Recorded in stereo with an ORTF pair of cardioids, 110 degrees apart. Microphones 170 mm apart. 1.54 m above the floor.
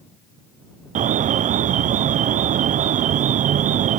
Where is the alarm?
50° right.